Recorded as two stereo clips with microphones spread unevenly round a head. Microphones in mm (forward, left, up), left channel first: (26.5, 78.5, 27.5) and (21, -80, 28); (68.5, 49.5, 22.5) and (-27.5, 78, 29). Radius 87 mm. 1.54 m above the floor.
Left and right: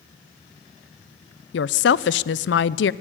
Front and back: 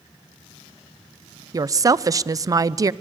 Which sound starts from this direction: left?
A woman speaking, at 1.5 s.